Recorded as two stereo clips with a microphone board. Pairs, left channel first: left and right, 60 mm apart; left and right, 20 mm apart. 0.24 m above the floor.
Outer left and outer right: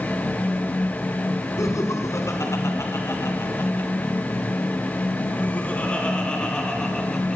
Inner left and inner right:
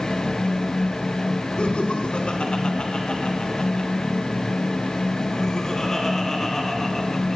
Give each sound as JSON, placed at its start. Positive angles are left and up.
{"t": 1.6, "sound": "laughter", "side_deg": 60, "distance_m": 3.0}